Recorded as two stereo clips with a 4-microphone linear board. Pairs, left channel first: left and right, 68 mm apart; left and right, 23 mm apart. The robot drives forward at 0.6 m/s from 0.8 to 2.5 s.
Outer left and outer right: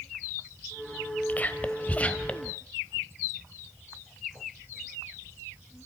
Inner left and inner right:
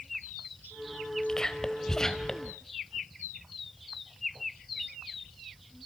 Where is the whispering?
25° left (ahead or behind), 2 m; by 2.5 s 20° left (ahead or behind), 3 m.